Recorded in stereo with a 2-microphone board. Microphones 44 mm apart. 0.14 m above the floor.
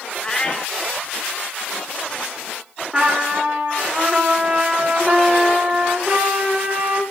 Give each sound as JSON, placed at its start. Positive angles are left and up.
{"t": 0.2, "sound": "a cat meowing", "side_deg": 20, "distance_m": 0.6}
{"t": 2.9, "sound": "a trumpet", "side_deg": -15, "distance_m": 1.7}